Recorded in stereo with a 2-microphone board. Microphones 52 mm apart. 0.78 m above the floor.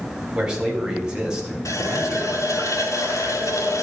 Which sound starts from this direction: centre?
A man speaking, at 0.3 s.